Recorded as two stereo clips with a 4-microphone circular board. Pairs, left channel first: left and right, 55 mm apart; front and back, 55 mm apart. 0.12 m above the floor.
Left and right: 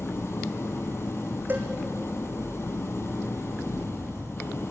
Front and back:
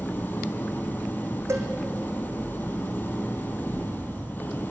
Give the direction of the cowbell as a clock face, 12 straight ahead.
5 o'clock.